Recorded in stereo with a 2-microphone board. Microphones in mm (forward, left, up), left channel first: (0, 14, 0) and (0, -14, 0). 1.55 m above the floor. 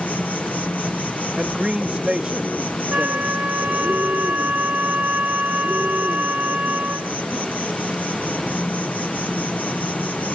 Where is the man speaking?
30° right (ahead or behind).